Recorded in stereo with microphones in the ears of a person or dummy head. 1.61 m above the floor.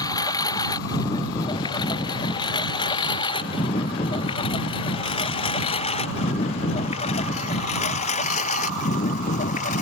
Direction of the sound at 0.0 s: 20° left (ahead or behind).